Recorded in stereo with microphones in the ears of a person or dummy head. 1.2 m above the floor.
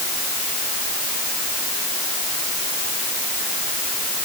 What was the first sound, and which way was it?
Only background noise.